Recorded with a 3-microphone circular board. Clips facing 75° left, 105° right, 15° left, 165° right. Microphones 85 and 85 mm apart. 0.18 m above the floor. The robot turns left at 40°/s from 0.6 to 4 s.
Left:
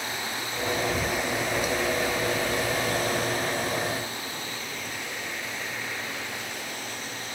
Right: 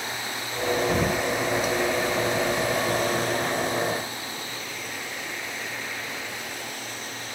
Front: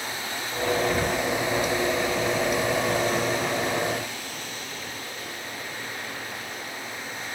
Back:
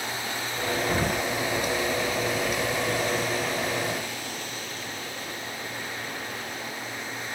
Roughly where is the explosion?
Right.